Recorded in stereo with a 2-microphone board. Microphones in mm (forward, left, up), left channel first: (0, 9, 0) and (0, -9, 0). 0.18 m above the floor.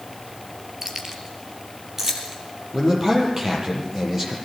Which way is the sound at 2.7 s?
20° right (ahead or behind).